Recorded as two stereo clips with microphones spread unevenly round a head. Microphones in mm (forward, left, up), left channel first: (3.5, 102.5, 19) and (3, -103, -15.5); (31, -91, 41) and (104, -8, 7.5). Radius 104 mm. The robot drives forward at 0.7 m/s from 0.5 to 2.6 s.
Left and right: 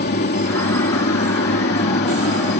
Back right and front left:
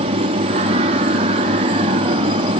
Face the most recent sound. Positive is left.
turn(degrees=50)